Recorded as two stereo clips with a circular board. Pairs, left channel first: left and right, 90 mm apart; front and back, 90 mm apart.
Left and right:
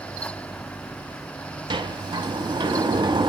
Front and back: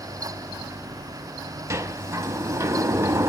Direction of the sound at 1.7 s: 125° right.